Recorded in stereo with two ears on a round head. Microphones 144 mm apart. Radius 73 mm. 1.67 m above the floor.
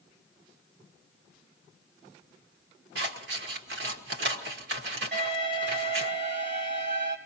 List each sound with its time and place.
3.0 s scissors: 80° right, 1.6 m
5.1 s an alarm: 50° right (ahead or behind), 4.5 m